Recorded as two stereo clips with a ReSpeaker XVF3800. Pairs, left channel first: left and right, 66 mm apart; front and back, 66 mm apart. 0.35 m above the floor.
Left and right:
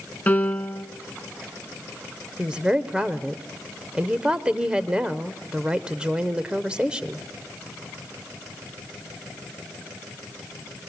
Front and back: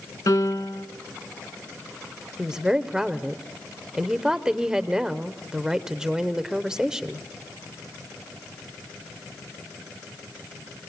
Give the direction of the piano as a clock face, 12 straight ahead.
11 o'clock.